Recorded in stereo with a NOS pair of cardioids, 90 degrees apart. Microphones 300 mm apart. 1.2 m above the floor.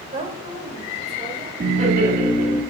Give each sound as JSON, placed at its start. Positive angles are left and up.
{"t": 0.1, "sound": "a woman speaking", "azimuth_deg": -25, "distance_m": 3.0}
{"t": 1.6, "sound": "laughter", "azimuth_deg": -25, "distance_m": 2.0}